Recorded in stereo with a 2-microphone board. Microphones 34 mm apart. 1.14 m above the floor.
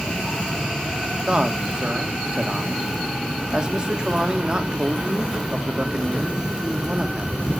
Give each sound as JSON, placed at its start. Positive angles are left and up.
{"t": 1.3, "sound": "a man speaking", "side_deg": -30, "distance_m": 2.5}